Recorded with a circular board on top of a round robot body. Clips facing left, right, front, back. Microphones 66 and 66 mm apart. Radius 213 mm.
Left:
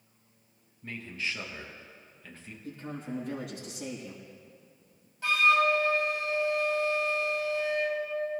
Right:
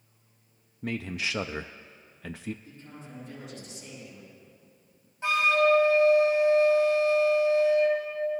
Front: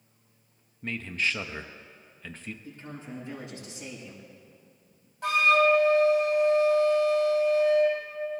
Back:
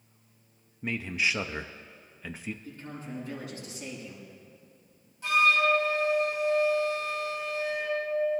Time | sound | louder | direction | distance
0.8 | a man speaking | right 4 dB, back 1 dB | 100° right | 0.5 m
2.6 | a man speaking | left 8 dB, back 1 dB | 70° left | 6 m
5.2 | a flute | right 1 dB, front 2 dB | 25° right | 3.5 m